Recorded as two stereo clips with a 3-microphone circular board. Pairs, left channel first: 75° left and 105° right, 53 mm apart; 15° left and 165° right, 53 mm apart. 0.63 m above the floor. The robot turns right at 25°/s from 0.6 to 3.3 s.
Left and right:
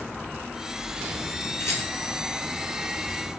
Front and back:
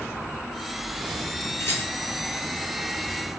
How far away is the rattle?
About 0.9 m.